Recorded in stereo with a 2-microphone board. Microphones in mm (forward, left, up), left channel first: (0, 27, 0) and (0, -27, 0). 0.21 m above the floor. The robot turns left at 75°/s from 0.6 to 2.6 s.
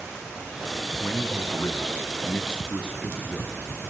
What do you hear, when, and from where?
1.0 s a man speaking: 145° left, 1.8 m; by 3.9 s 25° left, 1.8 m